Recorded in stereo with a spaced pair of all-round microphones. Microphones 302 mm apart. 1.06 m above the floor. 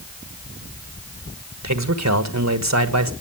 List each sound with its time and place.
1.6 s a man speaking: 60° right (ahead or behind), 1.4 m